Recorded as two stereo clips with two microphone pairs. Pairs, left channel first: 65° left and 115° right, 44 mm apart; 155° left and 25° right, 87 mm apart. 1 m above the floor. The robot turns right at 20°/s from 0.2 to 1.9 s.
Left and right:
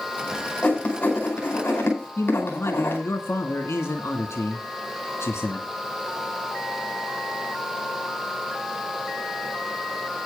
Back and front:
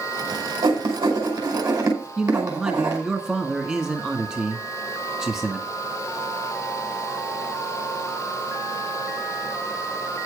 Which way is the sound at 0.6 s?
5° right.